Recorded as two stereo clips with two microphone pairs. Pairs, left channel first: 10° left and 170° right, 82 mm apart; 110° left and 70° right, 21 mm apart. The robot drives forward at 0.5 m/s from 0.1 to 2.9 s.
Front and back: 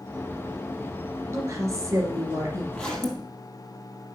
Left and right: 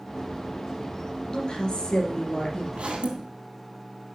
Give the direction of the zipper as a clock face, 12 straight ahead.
2 o'clock.